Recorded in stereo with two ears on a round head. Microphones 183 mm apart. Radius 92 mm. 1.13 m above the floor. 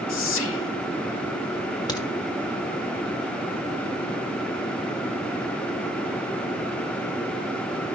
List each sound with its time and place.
0.1 s whispering: 70° left (ahead or behind), 2 m
1.9 s a crack: 20° left (ahead or behind), 1.7 m